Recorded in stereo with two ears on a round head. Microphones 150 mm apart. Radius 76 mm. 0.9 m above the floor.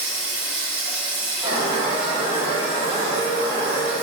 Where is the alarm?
30° right (ahead or behind), 0.8 m.